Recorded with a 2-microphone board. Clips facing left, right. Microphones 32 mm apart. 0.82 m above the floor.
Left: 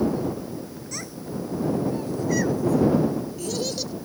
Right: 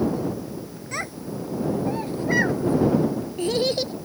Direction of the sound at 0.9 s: 35° right (ahead or behind).